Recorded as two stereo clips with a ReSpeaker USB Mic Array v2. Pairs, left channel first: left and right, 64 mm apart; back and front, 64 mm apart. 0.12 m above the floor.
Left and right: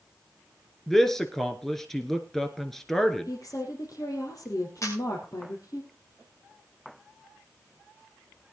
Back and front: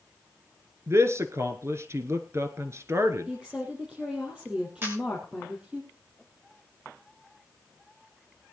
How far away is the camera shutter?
About 4.5 m.